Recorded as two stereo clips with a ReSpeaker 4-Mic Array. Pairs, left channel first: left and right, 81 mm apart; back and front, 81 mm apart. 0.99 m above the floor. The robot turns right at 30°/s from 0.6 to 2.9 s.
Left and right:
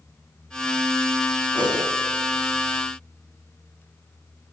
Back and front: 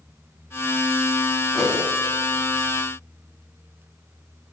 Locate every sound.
1.5 s a whoosh: 90° right, 7 m; by 1.9 s 80° right, 7 m